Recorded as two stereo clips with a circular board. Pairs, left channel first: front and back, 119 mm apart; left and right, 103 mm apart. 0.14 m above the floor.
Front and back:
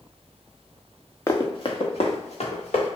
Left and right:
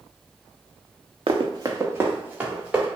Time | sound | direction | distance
1.3 | running footsteps | 65° right | 0.5 m